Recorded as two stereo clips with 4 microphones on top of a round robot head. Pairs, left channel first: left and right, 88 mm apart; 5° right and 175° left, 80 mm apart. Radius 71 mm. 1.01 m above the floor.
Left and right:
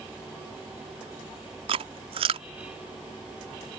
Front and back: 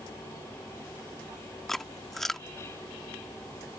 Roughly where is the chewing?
Right.